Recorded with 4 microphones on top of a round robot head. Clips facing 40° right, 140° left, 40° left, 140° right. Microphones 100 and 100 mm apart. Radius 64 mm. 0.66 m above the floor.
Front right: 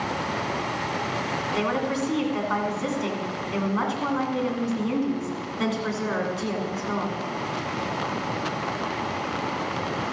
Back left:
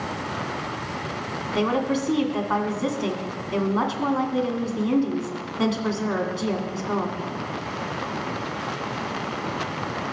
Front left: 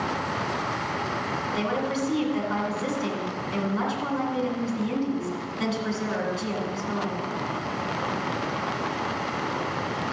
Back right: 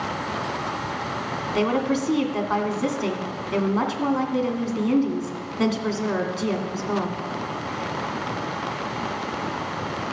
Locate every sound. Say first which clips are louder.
1.5 s a woman speaking: back left 4 dB, back right 7 dB; 165° right, 2 m